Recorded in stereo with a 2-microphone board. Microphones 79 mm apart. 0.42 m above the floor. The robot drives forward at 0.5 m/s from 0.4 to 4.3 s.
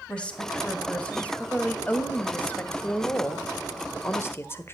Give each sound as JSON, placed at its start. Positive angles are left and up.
{"t": 0.1, "sound": "a woman speaking", "side_deg": 15, "distance_m": 3.0}